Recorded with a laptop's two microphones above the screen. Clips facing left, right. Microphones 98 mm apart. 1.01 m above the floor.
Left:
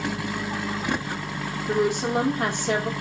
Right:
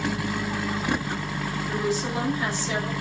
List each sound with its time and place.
1.7 s a woman speaking: 65° left (ahead or behind), 2.5 m